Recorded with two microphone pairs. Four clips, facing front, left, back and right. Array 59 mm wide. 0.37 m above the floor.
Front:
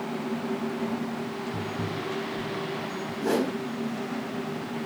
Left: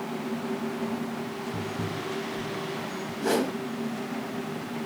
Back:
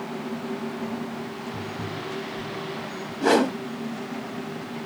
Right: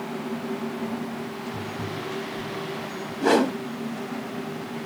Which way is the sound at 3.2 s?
140° right.